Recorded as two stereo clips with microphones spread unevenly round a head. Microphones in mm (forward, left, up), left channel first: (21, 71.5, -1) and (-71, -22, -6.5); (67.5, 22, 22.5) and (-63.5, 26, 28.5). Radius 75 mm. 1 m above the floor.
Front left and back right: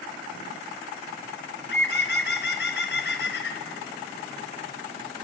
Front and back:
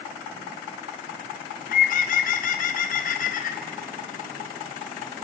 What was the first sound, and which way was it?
A bird, 15° left.